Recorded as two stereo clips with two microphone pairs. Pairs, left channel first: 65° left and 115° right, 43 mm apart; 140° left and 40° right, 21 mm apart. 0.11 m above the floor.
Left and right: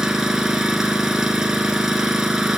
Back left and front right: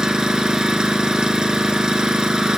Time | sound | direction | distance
0.0 | an engine running | 40° right | 1.6 m